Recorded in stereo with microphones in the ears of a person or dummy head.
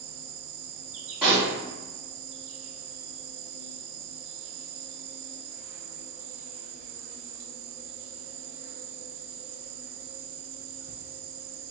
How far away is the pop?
About 1.4 m.